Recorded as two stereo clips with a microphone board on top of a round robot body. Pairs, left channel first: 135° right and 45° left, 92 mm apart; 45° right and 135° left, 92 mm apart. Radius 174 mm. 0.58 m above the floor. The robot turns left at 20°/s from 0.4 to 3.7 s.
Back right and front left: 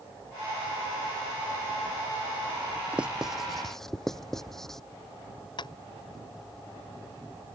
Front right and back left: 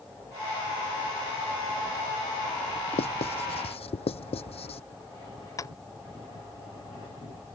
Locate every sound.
2.9 s writing: 35° right; by 4.8 s 50° right
5.6 s tapping: 100° right